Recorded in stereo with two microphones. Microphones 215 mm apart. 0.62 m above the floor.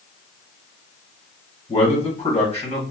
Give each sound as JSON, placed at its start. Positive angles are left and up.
{"t": 1.7, "sound": "a man speaking", "side_deg": 30, "distance_m": 1.4}